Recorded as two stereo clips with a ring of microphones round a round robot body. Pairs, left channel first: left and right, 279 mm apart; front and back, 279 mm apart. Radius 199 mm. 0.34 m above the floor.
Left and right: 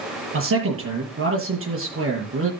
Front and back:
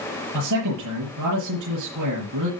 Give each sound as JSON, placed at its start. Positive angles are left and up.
{"t": 0.3, "sound": "a man speaking", "azimuth_deg": -135, "distance_m": 6.0}